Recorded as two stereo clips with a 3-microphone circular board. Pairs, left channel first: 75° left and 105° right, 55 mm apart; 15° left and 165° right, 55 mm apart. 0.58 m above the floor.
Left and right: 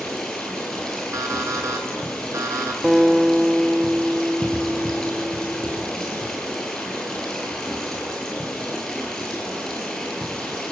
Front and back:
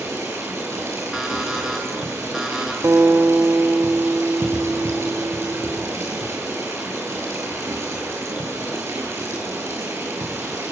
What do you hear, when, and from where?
0.0 s running water: 155° left, 7.5 m
1.1 s an alarm clock: 85° right, 5 m
2.8 s a guitar: 175° left, 1.8 m